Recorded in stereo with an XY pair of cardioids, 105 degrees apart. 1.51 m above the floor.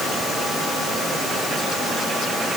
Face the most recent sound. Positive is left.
No sound to turn to.